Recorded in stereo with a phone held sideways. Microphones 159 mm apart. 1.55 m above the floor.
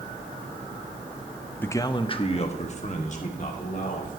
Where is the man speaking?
10° left (ahead or behind), 0.6 m; by 4.2 s 55° left (ahead or behind), 2.5 m.